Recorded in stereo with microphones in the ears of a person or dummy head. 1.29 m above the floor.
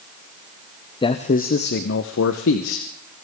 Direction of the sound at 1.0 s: 20° left (ahead or behind).